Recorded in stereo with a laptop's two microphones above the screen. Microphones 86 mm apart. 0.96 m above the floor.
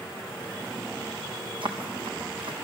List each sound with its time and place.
1.6 s running footsteps: 75° right (ahead or behind), 3 m